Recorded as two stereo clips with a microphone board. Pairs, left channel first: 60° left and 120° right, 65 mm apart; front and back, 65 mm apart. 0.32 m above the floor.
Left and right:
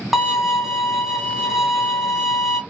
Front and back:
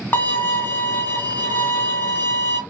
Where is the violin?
40° right, 0.7 m.